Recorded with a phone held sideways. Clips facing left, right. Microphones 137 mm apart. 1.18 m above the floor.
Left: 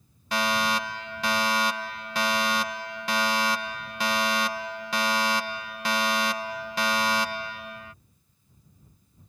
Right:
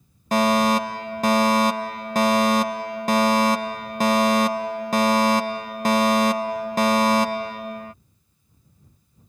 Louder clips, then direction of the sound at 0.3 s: Right 8 dB; 45° right (ahead or behind).